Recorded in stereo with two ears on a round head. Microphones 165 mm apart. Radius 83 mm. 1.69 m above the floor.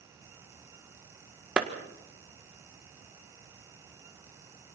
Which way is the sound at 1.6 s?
5° right (ahead or behind).